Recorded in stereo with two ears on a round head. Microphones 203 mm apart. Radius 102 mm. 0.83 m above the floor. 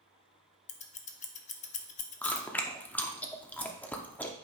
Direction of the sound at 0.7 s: 30° left (ahead or behind).